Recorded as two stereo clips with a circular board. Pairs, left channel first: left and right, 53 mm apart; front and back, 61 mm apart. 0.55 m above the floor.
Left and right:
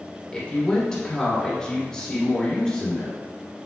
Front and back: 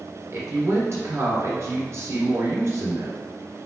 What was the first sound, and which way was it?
A woman speaking, 165° left.